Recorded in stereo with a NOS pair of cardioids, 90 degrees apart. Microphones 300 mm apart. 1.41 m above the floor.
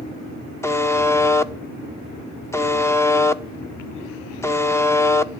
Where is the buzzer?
10° left, 0.8 m.